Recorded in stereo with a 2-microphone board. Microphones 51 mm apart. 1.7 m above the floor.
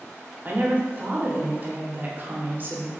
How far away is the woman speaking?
About 0.8 m.